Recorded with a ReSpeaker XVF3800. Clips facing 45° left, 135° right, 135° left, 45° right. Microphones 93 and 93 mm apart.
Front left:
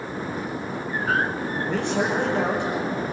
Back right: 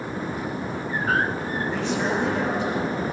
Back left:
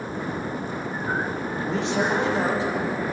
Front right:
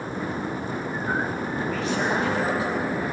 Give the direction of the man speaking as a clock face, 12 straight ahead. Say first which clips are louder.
Front left 2 dB, back left 3 dB; 10 o'clock.